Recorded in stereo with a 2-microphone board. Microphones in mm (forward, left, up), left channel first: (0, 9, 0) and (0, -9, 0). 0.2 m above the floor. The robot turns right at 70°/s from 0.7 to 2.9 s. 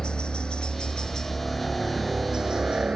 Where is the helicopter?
105° left; by 3.0 s 100° right.